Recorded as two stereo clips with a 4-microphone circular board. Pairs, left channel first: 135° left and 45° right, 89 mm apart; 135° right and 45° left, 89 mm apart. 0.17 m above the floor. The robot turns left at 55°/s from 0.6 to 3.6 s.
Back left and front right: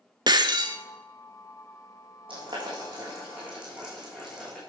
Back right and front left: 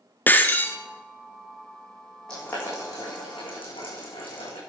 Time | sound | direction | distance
0.3 | breaking glass | 70° right | 1.0 m
2.3 | boiling | 55° right | 7.5 m